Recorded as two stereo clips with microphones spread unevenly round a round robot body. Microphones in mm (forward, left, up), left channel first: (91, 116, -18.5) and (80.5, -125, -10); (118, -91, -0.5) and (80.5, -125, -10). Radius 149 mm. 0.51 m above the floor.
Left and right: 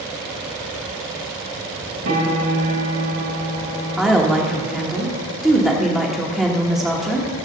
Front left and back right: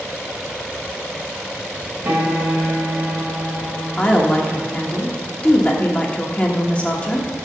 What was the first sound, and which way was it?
A piano, 100° right.